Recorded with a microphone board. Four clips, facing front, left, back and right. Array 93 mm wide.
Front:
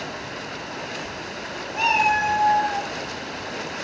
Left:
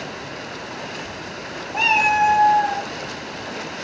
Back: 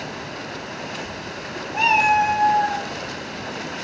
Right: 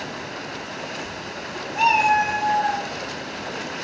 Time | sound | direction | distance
1.7 | a cat meowing | 115° left | 2.5 m